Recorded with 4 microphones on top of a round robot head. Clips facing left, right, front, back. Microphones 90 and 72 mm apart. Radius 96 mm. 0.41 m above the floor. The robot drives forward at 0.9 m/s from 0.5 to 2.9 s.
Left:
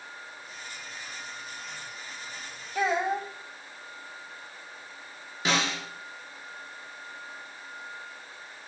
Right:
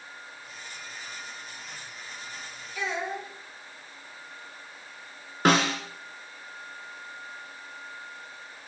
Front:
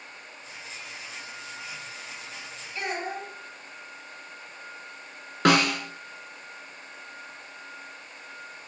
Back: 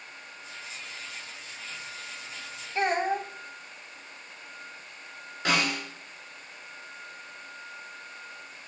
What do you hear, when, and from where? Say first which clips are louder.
2.8 s a child speaking: left 6 dB, back 6 dB; 130° left, 2.5 m; by 3.3 s 135° left, 3 m
5.5 s a snare drum: right 6 dB, front 6 dB; 40° right, 1.3 m